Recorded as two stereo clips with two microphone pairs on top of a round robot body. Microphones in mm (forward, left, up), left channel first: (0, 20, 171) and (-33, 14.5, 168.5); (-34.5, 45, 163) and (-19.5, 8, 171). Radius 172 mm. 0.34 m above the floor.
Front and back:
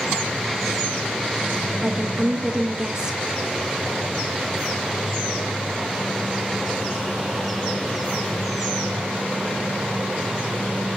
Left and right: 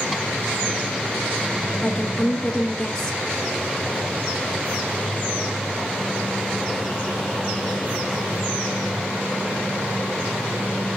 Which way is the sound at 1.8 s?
145° left.